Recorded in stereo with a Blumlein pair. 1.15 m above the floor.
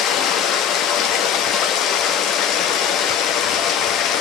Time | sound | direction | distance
0.0 | running water | 35° left | 0.9 m